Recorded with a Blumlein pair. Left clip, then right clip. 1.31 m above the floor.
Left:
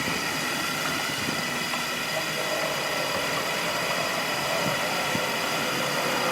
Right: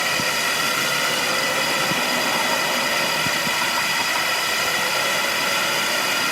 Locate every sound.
0.0 s a drone: 25° right